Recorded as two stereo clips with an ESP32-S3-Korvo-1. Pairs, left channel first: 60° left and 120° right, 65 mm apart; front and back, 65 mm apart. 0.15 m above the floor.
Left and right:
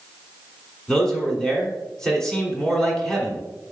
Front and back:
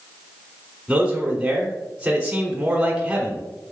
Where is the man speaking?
130° left, 1.3 m.